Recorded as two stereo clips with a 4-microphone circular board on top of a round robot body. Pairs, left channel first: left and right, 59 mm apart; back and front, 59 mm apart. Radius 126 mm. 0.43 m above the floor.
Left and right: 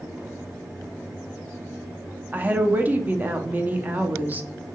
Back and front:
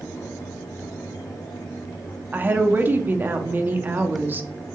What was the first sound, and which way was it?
A woman speaking, 40° right.